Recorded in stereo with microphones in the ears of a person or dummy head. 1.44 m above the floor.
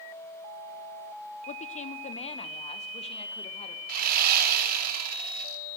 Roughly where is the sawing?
Right.